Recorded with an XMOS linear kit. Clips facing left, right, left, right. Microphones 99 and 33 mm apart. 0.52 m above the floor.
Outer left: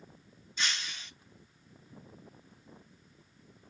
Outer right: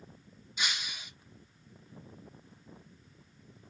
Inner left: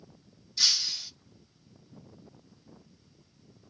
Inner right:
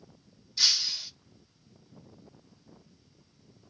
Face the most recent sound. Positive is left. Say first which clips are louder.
# even, inner right 1 dB
turn(degrees=-10)  # may be behind; listen again after turning